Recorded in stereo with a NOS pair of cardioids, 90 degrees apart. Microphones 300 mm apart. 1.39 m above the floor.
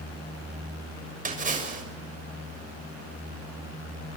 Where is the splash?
25° right, 6.5 m.